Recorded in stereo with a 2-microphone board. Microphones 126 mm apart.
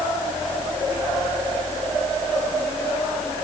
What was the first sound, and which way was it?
Only background noise.